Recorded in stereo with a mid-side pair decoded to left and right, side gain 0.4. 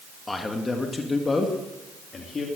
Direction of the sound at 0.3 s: 25° left.